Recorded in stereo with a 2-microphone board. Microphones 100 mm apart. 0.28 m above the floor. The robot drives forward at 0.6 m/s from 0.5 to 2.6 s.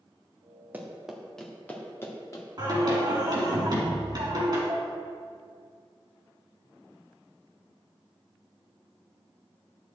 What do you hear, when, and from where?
0.7 s running footsteps: 20° right (ahead or behind), 2 m; by 2.5 s 35° left (ahead or behind), 3 m
2.6 s singing: 45° right (ahead or behind), 3 m
4.7 s dishes clattering: 75° right (ahead or behind), 2.5 m